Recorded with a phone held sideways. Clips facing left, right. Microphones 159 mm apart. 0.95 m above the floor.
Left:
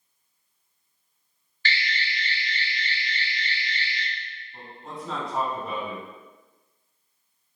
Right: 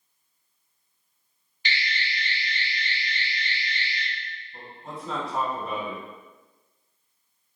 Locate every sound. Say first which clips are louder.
1.6 s an alarm: left 1 dB; 20° right (ahead or behind), 1.0 m
4.5 s a man speaking: left 1 dB; centre (ahead or behind), 1.8 m